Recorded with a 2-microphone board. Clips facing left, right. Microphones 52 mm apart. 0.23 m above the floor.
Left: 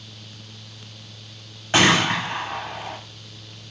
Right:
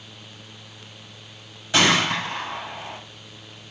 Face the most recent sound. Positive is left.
turn(degrees=40)  # may be behind; listen again after turning